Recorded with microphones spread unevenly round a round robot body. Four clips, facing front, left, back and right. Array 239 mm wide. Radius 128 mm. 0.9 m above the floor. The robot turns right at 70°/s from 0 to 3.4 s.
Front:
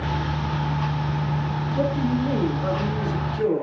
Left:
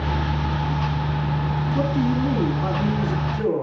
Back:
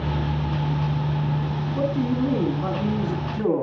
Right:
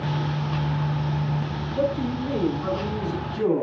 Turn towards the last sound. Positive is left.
turn(degrees=-160)